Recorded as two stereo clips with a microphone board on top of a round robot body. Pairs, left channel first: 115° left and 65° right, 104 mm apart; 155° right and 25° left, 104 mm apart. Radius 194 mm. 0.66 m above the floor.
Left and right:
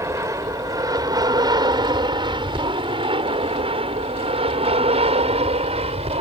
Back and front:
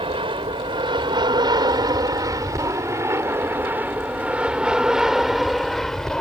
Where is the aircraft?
5° right; by 6.2 s 75° right.